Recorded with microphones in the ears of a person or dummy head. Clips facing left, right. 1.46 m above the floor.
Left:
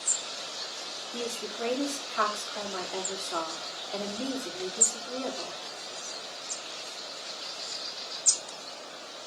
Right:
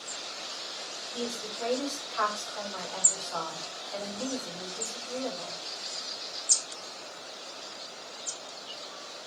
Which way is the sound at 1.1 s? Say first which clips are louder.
Left 1 dB; 30° left (ahead or behind).